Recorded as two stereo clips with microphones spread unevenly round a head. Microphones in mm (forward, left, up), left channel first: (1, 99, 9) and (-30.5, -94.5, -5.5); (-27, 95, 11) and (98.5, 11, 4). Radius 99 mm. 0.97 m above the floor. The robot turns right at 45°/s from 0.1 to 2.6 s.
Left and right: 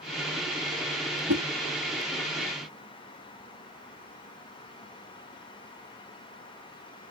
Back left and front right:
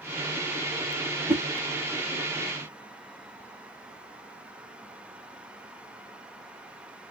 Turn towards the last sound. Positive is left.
turn(degrees=-25)